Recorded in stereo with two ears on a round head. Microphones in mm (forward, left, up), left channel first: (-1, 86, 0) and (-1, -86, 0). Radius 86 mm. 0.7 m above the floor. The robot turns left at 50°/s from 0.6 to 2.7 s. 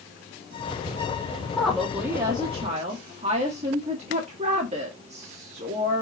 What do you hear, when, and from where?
1.6 s a woman speaking: 10° left, 1.5 m; by 6.0 s 45° right, 1.5 m